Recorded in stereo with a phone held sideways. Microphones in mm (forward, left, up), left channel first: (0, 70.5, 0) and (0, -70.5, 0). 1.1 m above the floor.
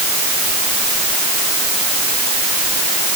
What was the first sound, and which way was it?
Only background noise.